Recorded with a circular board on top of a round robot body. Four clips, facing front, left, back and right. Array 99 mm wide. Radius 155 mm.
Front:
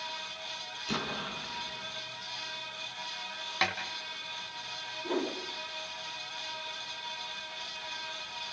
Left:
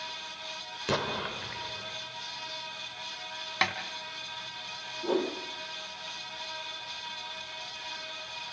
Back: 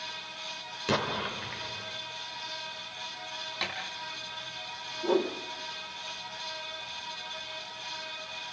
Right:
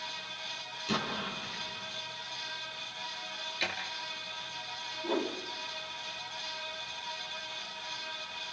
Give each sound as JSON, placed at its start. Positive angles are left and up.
{"t": 0.9, "sound": "an explosion", "azimuth_deg": 140, "distance_m": 3.0}
{"t": 3.6, "sound": "a snare drum", "azimuth_deg": 70, "distance_m": 2.5}
{"t": 5.0, "sound": "a whoosh", "azimuth_deg": 145, "distance_m": 5.0}